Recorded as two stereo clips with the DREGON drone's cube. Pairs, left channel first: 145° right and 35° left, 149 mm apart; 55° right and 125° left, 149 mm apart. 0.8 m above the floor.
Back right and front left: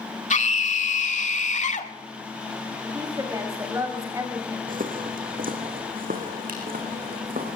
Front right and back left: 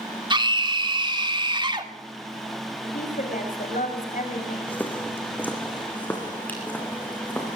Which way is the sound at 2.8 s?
35° right.